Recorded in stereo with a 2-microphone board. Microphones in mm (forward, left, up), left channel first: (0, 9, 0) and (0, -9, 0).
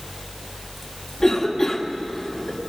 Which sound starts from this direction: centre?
A cough, at 1.2 s.